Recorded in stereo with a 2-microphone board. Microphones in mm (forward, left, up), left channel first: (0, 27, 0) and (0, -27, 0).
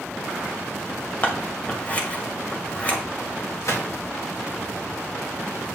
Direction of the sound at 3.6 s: 80° left.